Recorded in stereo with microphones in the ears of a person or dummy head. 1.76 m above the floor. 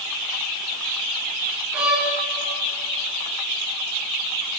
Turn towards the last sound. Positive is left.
turn(degrees=-10)  # may be behind; listen again after turning